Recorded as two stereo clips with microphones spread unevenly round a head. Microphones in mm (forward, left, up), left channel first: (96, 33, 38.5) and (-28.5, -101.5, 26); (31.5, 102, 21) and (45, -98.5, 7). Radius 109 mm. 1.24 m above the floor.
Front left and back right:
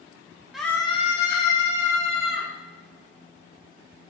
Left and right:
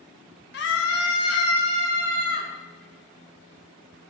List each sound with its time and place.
0.5 s a scream: 140° left, 1.2 m; by 2.5 s 75° left, 3 m